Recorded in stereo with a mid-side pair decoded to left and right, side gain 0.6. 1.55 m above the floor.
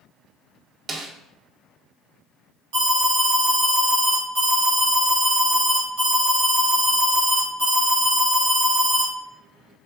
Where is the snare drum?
40° right, 0.7 m.